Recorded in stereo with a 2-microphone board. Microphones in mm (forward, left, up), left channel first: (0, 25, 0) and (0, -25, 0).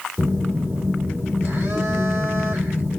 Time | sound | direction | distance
0.2 | a phone buzzing | 50° right (ahead or behind) | 2.0 m